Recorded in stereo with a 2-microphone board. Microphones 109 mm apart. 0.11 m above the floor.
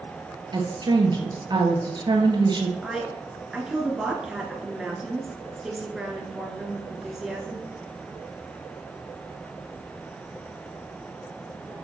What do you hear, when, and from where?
0.5 s a woman speaking: 40° right (ahead or behind), 1.6 m
2.8 s a woman speaking: 5° right (ahead or behind), 1.2 m